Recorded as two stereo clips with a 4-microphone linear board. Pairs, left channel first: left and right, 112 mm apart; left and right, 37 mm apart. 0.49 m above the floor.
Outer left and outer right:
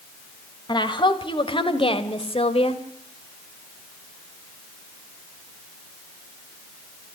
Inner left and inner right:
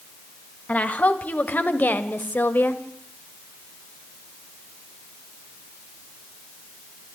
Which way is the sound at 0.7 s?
45° left (ahead or behind).